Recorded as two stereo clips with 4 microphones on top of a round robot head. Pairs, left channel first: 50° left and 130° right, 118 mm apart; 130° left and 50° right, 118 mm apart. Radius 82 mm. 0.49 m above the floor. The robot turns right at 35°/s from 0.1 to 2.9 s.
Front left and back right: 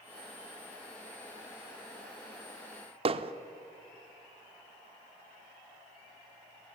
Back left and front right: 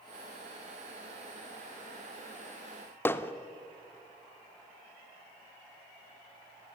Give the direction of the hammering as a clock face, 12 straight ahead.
5 o'clock.